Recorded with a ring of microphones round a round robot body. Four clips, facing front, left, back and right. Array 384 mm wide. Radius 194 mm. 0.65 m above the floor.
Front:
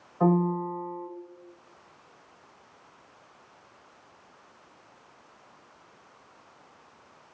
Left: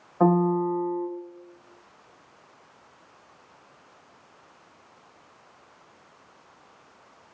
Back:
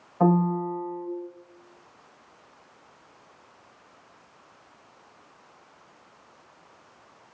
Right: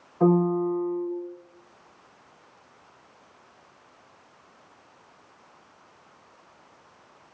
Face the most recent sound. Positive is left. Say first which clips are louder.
# even, back 2 dB
turn(degrees=130)